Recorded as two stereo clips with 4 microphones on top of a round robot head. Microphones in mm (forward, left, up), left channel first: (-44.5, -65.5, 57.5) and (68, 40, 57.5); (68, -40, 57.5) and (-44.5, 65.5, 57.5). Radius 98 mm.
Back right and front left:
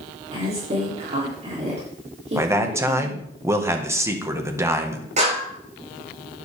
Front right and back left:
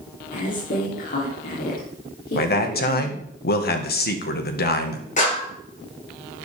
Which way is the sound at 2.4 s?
30° right.